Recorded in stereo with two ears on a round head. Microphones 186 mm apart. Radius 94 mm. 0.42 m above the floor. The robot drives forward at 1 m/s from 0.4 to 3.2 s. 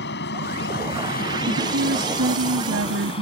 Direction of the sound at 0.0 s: 55° left (ahead or behind).